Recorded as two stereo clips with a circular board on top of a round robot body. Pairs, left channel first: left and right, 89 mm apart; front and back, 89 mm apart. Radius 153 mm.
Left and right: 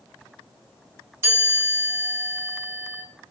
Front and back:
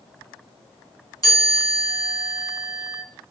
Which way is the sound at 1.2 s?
40° right.